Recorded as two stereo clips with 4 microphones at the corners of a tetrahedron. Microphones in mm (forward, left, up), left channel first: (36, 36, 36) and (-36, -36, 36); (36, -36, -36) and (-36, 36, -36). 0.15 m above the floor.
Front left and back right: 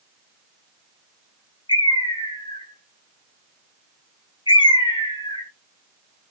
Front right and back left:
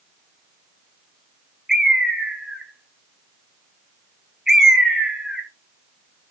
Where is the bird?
50° left, 0.7 m.